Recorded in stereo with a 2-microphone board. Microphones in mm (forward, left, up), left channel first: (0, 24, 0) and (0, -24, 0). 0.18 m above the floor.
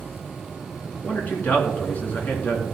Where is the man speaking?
40° left (ahead or behind), 2.5 m.